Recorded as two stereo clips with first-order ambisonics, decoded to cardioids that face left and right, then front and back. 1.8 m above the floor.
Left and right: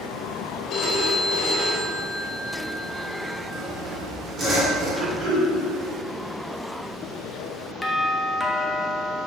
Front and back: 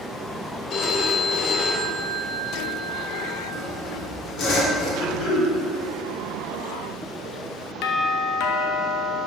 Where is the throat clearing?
45° right, 1.7 m.